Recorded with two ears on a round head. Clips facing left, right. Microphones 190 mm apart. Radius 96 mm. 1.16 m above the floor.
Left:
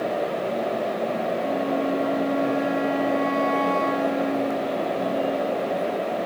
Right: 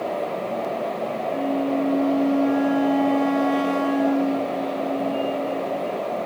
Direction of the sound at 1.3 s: 80° right.